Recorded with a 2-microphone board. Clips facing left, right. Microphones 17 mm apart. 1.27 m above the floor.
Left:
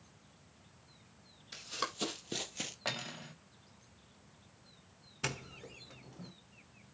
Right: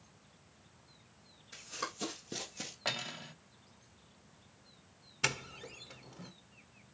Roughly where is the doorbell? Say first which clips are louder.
Right 5 dB; right.